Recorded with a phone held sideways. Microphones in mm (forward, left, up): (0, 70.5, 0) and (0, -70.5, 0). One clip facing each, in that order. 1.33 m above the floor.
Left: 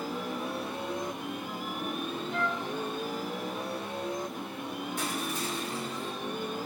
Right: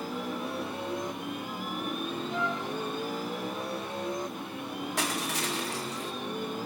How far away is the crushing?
About 0.8 m.